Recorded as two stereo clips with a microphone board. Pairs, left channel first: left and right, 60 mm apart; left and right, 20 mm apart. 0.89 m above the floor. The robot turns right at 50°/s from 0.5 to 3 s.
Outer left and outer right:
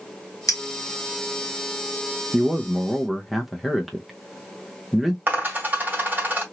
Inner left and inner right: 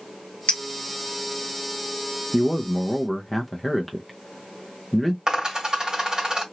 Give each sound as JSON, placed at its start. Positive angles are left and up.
{"t": 0.5, "sound": "a clink", "side_deg": 75, "distance_m": 1.0}
{"t": 2.3, "sound": "a man speaking", "side_deg": -10, "distance_m": 0.6}
{"t": 5.3, "sound": "a dropped coin", "side_deg": -35, "distance_m": 1.9}